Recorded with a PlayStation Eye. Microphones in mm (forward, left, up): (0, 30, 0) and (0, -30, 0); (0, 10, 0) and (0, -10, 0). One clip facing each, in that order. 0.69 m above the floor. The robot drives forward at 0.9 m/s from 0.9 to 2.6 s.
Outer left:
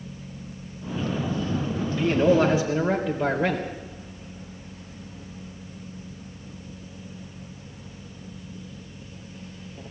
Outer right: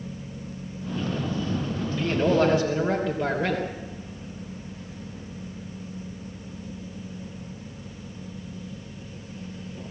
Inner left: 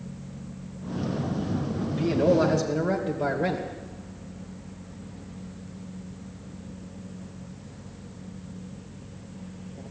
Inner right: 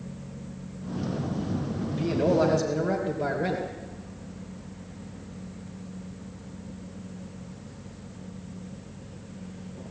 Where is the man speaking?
10° left (ahead or behind), 3.5 m.